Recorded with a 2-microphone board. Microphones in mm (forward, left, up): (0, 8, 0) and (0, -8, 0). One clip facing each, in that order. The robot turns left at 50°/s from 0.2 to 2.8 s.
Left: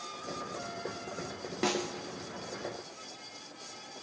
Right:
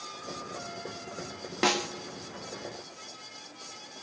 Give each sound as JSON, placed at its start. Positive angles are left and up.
{"t": 1.6, "sound": "a snare drum", "side_deg": -25, "distance_m": 0.6}